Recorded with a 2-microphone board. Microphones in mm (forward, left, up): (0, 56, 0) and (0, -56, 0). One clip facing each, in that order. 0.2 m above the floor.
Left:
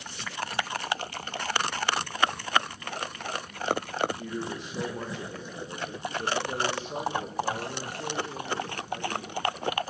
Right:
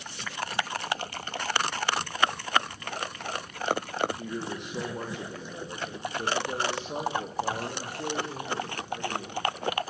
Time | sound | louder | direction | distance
4.2 | a man speaking | even | 60° right (ahead or behind) | 9 m